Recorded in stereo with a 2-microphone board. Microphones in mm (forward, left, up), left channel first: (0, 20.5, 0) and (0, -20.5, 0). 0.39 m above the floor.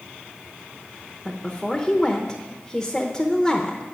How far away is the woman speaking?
About 0.8 m.